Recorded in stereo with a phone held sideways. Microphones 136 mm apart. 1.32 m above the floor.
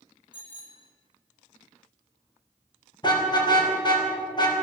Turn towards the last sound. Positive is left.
turn(degrees=30)  # may be behind; listen again after turning